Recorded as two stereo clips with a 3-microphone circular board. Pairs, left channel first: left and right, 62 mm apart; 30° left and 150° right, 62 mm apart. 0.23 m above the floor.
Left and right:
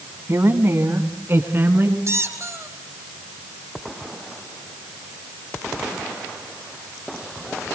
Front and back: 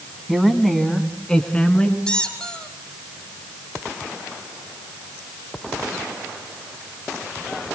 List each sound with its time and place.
0.3 s a woman speaking: 65° right, 2.0 m; by 2.0 s 40° right, 3 m
2.1 s a squeak: 45° right, 4 m